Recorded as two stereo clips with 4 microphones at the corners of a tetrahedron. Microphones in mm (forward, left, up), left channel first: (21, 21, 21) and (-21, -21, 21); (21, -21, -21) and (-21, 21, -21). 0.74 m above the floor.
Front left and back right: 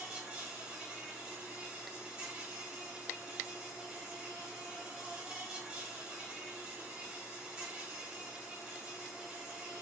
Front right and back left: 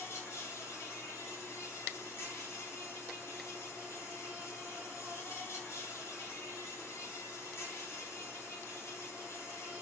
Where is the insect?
60° right, 1.4 m.